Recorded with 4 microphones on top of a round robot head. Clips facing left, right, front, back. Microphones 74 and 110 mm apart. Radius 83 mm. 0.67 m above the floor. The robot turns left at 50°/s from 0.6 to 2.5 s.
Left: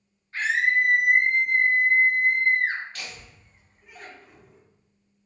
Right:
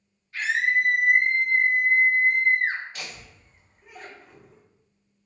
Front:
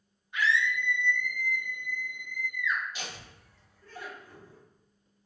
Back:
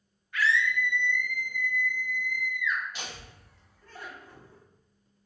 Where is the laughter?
160° right, 1.4 m.